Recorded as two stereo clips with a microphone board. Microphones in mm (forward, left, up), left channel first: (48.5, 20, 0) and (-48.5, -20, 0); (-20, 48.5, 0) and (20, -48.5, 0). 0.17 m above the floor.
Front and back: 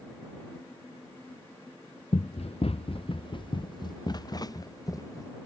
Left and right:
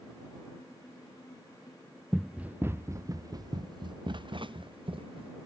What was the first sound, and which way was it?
Running footsteps, 20° left.